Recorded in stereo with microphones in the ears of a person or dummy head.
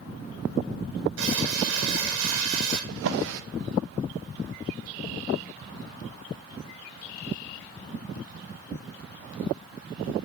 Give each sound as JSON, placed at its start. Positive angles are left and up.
{"t": 1.2, "sound": "crumpling", "side_deg": -60, "distance_m": 1.6}
{"t": 2.9, "sound": "a drawer", "side_deg": -60, "distance_m": 0.7}